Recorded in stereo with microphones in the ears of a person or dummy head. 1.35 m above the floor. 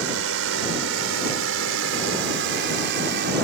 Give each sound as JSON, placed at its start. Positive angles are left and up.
{"t": 0.0, "sound": "a drone", "side_deg": -70}